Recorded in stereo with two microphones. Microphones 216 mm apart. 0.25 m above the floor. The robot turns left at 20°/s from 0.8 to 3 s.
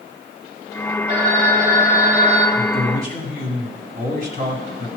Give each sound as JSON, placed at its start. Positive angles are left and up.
{"t": 1.1, "sound": "a phone ringing", "side_deg": -45, "distance_m": 3.5}
{"t": 2.5, "sound": "a man speaking", "side_deg": -40, "distance_m": 1.9}